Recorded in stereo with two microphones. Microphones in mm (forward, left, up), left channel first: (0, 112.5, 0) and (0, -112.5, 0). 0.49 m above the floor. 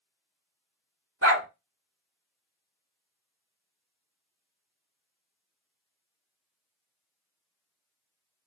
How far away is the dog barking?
About 1.4 m.